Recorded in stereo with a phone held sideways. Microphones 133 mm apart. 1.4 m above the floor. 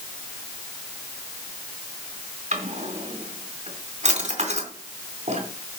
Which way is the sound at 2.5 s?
65° right (ahead or behind).